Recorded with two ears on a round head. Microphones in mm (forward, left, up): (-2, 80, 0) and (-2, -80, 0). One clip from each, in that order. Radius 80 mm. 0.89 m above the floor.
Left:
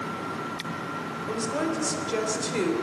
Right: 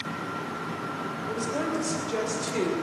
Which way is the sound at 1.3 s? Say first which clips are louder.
Left 1 dB; 20° left (ahead or behind).